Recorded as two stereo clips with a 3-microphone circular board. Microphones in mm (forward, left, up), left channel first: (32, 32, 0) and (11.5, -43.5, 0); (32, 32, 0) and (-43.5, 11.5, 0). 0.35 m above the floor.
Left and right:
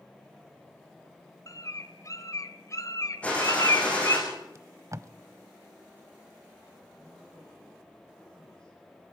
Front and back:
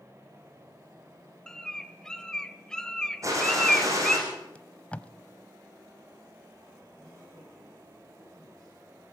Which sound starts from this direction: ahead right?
Tape being pulled, at 4.5 s.